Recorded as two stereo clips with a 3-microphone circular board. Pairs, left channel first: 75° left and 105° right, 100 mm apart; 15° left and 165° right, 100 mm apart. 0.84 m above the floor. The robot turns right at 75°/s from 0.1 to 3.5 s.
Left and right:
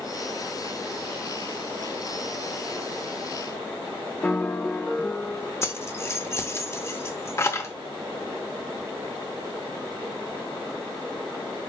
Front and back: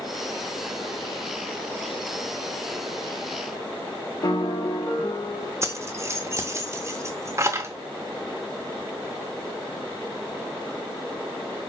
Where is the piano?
10° left, 0.6 m.